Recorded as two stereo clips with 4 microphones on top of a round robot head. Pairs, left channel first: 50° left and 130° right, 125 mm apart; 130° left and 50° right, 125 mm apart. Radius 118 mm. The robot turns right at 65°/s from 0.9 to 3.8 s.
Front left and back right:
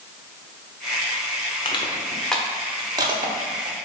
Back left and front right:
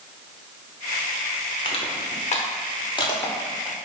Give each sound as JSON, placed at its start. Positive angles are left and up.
{"t": 1.6, "sound": "crushing", "azimuth_deg": 90, "distance_m": 0.9}